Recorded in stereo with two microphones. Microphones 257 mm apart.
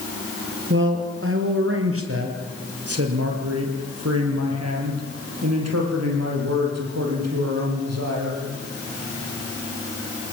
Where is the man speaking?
50° right (ahead or behind), 4.5 m; by 8.4 s 75° right (ahead or behind), 8 m.